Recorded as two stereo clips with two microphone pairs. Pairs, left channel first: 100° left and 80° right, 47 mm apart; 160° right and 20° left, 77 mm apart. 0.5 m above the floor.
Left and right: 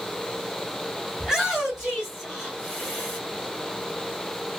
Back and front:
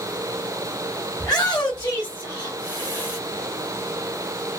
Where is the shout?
155° right, 1.3 m; by 3.2 s 165° right, 2.5 m.